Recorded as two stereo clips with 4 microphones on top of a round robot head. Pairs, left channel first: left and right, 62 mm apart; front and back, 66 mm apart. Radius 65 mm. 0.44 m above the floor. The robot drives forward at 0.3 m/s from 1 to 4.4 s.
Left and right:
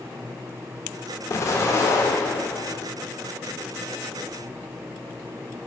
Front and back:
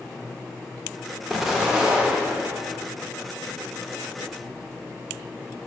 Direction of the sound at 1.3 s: 90° left.